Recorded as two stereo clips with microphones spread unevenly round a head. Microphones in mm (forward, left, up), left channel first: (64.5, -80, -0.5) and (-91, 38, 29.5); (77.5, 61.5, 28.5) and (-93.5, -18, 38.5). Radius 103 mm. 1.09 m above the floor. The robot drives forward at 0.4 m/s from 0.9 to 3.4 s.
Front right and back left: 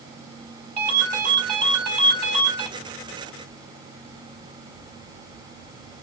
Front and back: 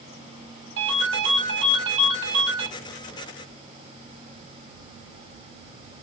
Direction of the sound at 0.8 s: 175° right.